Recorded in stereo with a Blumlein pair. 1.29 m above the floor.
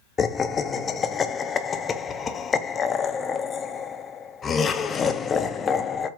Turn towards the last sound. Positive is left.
turn(degrees=20)